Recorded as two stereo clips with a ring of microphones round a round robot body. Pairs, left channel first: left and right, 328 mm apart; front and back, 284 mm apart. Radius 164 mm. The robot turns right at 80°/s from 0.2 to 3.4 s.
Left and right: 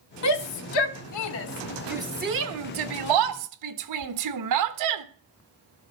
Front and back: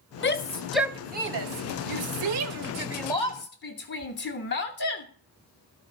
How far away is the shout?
About 1.1 m.